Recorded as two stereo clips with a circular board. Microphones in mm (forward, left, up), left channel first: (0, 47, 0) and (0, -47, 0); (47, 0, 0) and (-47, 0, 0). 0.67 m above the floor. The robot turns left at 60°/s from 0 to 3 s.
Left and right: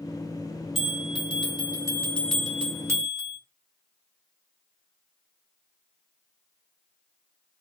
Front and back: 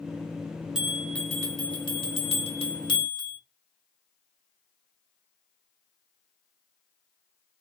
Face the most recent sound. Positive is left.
turn(degrees=-35)